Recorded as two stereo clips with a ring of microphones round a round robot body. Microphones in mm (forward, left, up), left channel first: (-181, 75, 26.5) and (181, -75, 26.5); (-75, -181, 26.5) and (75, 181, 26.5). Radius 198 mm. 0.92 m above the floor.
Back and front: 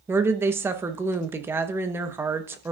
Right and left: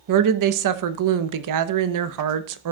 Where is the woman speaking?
60° left, 0.9 m.